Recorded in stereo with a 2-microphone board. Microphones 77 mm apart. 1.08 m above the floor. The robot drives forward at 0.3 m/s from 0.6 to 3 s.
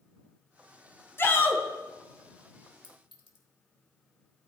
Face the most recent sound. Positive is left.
turn(degrees=85)